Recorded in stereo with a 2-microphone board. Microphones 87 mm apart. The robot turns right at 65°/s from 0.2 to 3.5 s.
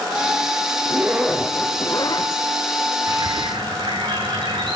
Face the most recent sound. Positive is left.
turn(degrees=-70)  # may be behind; listen again after turning